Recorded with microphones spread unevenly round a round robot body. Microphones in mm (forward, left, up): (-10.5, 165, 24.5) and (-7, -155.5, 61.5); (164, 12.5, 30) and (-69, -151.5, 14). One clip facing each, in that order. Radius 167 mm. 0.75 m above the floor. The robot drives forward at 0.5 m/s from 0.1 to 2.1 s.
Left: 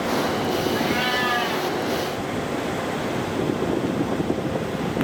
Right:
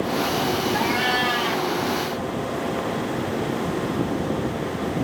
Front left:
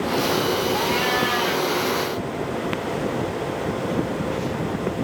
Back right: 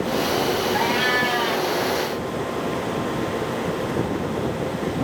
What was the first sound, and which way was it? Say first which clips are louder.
A cat meowing: left 1 dB, even; 85° right.